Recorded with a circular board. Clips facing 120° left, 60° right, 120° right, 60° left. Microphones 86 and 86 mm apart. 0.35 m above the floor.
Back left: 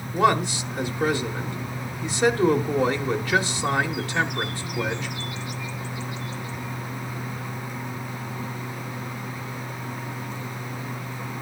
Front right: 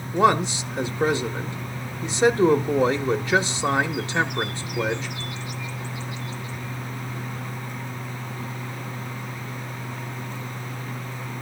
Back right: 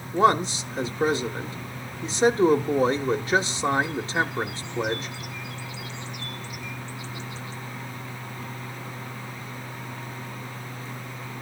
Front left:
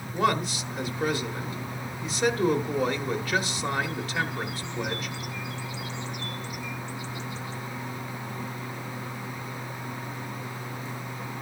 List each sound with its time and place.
0.1 s a man speaking: 105° right, 1.0 m